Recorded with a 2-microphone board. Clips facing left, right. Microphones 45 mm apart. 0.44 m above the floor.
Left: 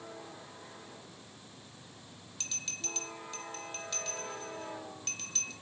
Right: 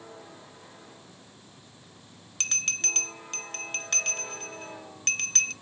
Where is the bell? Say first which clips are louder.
Right 11 dB; 60° right (ahead or behind), 0.5 m.